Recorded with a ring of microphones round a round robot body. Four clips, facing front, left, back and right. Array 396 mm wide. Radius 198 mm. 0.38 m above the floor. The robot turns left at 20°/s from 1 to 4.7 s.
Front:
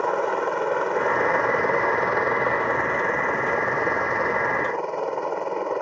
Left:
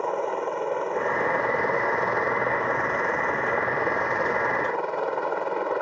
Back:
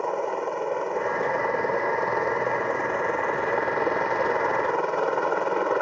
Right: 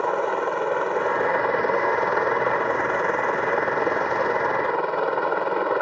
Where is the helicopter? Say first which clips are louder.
Right 3 dB, front 4 dB; 50° right; by 5.8 s 120° right.